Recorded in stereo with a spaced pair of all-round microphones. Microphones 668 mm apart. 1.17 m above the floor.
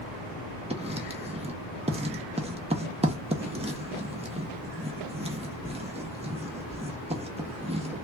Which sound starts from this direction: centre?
Writing, at 0.7 s.